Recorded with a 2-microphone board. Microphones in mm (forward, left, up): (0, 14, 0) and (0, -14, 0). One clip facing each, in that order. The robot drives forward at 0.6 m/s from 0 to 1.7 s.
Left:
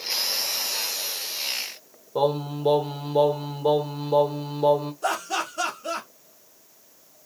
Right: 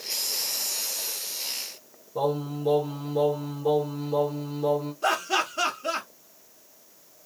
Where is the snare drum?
I don't hear a snare drum.